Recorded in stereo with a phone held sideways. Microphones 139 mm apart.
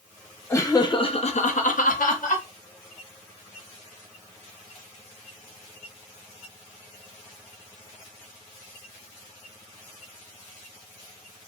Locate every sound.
0.5 s laughter: 20° left (ahead or behind), 0.8 m; by 2.5 s 75° left (ahead or behind), 0.9 m